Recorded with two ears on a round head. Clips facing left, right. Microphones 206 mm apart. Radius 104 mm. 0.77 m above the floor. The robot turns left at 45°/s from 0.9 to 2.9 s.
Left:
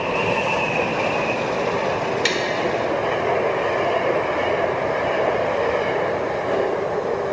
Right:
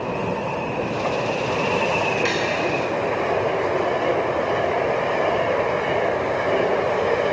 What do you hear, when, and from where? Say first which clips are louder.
2.2 s tapping: even; 45° left (ahead or behind), 1.4 m; by 2.4 s 40° left (ahead or behind), 1.4 m